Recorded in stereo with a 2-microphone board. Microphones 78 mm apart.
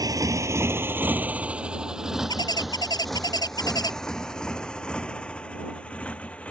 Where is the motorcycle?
50° right (ahead or behind); by 6.5 s 15° left (ahead or behind).